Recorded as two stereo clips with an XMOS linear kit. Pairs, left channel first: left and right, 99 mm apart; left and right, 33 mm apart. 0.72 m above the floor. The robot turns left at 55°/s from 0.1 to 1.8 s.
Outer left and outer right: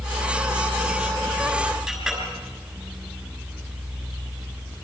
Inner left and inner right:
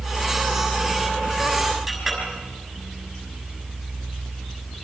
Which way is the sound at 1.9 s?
5° right (ahead or behind).